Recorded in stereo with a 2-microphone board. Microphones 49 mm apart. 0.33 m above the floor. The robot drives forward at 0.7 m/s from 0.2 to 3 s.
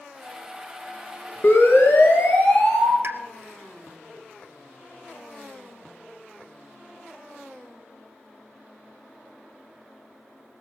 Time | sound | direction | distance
1.4 | a siren | 45° left (ahead or behind) | 3.5 m
3.0 | a pop | 60° right (ahead or behind) | 1.1 m